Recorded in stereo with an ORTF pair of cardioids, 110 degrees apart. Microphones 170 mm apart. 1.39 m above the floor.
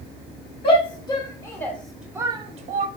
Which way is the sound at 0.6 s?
30° left.